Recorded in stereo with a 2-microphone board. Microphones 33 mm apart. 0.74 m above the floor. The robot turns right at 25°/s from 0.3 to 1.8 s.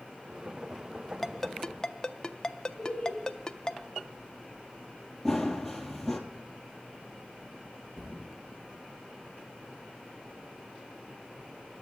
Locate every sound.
1.2 s a ringtone: 10° left (ahead or behind), 0.5 m; by 3.8 s 20° left (ahead or behind), 0.5 m
2.8 s laughter: 10° left (ahead or behind), 4 m
5.2 s running footsteps: 10° left (ahead or behind), 1.3 m
8.0 s a thud: 25° right (ahead or behind), 4 m